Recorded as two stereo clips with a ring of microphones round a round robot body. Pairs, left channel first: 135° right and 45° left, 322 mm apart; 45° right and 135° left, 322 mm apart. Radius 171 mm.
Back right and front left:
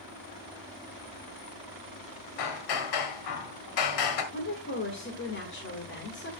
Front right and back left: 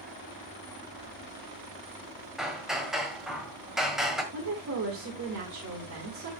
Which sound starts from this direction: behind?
A woman speaking, at 4.3 s.